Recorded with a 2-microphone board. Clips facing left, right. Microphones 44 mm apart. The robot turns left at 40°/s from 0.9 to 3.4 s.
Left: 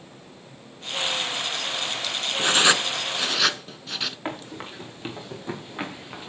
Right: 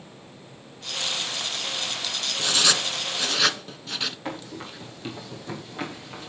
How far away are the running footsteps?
About 6 m.